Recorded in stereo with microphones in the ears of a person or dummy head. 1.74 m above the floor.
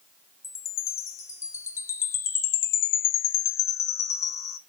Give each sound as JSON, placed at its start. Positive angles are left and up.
{"t": 0.4, "sound": "a chime", "side_deg": 20, "distance_m": 0.5}